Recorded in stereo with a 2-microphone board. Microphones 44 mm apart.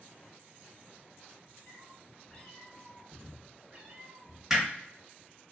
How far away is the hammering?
About 1.7 m.